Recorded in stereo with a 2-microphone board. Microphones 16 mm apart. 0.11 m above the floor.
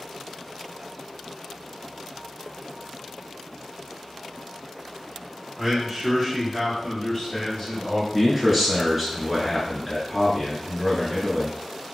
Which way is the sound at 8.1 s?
10° right (ahead or behind).